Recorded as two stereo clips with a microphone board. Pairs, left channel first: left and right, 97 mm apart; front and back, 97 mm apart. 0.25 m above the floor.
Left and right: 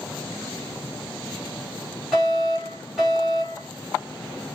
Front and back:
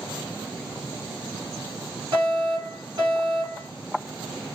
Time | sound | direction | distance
2.1 | a fire alarm | 175° left | 3.5 m